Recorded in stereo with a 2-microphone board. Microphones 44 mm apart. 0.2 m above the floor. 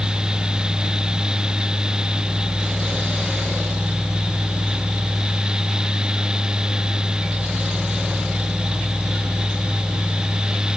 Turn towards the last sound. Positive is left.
No sound to turn to.